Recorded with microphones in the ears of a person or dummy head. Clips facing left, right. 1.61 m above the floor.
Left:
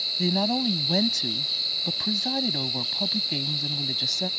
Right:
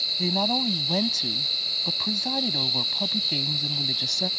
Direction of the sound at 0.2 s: 10° left (ahead or behind).